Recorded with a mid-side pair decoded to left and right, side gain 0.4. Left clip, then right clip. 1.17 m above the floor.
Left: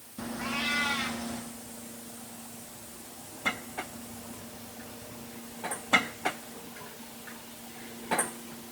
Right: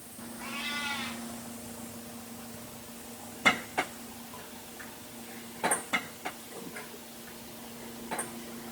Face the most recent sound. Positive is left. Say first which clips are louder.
# left 5 dB
turn(degrees=60)